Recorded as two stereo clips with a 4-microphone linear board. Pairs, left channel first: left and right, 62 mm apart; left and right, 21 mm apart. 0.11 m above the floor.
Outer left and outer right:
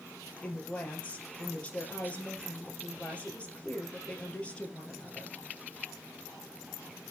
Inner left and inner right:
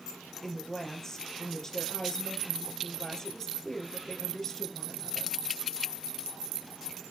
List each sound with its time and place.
0.4 s a woman speaking: 20° left (ahead or behind), 2.5 m